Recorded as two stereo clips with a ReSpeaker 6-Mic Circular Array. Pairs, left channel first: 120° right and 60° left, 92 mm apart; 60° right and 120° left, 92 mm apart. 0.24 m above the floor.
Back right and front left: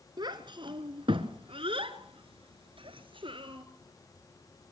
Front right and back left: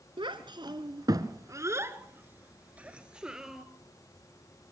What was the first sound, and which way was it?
A child speaking, 95° left.